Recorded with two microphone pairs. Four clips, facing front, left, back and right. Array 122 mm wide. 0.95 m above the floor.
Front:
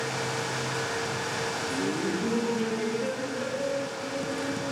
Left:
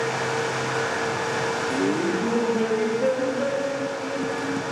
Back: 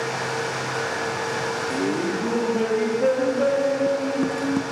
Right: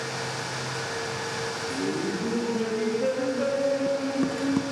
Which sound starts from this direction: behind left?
Laughter, at 1.7 s.